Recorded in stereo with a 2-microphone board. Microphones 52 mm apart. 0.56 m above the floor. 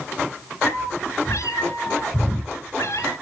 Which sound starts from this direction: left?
A cat meowing, at 0.6 s.